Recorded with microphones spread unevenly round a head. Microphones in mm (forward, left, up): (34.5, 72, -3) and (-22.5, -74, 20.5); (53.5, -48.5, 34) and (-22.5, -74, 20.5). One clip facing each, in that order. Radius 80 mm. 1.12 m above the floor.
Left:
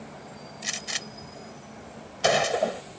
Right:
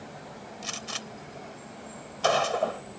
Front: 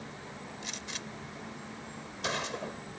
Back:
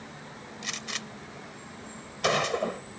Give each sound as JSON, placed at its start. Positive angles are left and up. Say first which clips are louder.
{"t": 0.6, "sound": "a gunshot", "louder": "even, back 3 dB", "azimuth_deg": 140}